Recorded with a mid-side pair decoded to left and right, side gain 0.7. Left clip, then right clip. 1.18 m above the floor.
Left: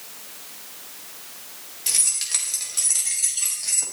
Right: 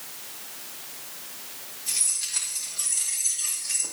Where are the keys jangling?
55° left, 3.5 m; by 3.8 s 65° left, 5.5 m.